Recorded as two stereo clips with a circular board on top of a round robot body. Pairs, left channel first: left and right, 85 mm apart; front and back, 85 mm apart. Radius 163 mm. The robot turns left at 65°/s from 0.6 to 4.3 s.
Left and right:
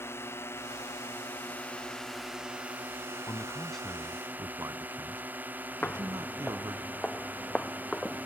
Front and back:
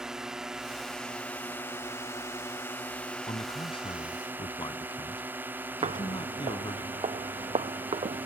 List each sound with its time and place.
0.0 s a drone: 105° left; by 8.3 s 135° right
3.3 s a man speaking: 35° left; by 6.8 s 35° right
5.8 s footsteps: 165° left; by 8.3 s 175° left